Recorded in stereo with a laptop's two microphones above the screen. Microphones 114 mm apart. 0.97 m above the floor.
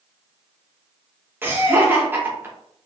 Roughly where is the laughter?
Centre.